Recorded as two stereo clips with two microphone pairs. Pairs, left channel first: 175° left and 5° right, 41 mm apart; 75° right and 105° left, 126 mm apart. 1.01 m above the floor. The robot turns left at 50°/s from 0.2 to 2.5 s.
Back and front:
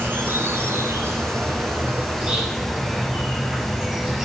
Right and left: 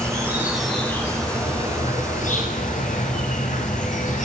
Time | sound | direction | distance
0.0 | an insect | 35° left | 8 m